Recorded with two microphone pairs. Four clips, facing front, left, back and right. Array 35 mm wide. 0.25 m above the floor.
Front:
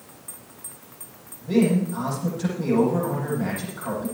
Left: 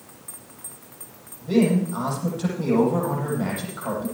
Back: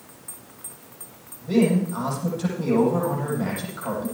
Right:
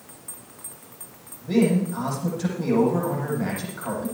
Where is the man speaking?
115° left, 9.5 m.